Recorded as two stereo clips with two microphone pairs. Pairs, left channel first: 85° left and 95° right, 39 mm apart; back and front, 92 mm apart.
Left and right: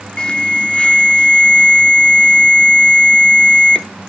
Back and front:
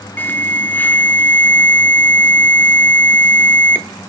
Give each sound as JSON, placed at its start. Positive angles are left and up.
{"t": 0.2, "sound": "an alarm", "azimuth_deg": 130, "distance_m": 0.6}